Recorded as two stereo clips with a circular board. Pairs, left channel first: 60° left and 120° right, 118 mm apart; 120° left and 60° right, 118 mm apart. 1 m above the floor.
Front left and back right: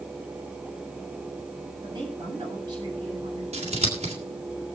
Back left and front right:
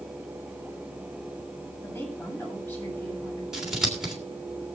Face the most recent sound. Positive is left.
turn(degrees=-145)